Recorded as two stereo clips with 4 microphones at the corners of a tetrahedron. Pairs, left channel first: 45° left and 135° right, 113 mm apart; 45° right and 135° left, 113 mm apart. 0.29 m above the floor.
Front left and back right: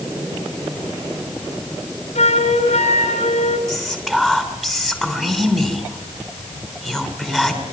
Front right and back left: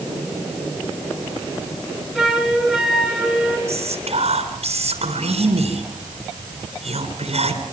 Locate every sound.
2.1 s a flute: 45° left, 2.5 m
3.7 s whispering: 140° left, 3.5 m